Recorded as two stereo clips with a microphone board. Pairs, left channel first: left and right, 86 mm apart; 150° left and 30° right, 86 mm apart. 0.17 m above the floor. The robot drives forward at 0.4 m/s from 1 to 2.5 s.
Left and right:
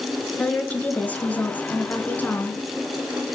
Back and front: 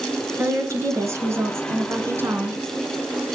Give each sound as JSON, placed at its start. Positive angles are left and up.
{"t": 0.4, "sound": "a woman speaking", "azimuth_deg": 20, "distance_m": 2.5}